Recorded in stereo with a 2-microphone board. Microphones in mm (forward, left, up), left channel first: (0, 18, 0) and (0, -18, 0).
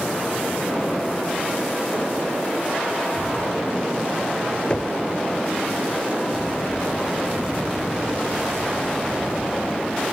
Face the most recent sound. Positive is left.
turn(degrees=30)  # may be behind; listen again after turning